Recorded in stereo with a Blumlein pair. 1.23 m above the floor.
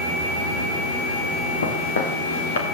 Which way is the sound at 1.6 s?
70° left.